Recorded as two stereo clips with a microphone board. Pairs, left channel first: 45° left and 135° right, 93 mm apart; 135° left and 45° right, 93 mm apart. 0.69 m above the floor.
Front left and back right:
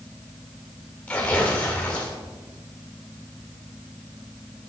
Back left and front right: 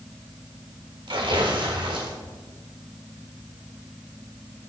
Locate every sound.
1.1 s tearing paper: 30° right, 1.6 m